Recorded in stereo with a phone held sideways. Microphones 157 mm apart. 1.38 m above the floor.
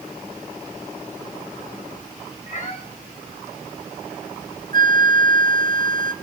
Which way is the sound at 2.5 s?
45° left (ahead or behind).